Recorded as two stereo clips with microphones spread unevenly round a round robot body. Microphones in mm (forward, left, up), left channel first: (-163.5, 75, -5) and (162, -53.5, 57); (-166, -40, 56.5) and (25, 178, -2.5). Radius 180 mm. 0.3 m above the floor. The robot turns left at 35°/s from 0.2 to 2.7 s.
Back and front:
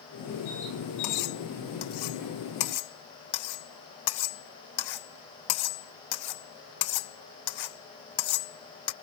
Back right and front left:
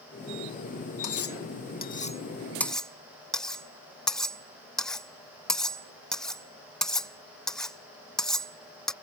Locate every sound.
1.0 s cutlery clinking: 160° right; by 8.9 s 140° left